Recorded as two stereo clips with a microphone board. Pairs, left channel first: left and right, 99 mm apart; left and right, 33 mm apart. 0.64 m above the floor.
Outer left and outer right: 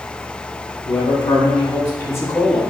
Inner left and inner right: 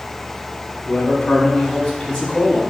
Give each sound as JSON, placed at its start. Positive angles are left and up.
{"t": 0.8, "sound": "a man speaking", "side_deg": 45, "distance_m": 3.0}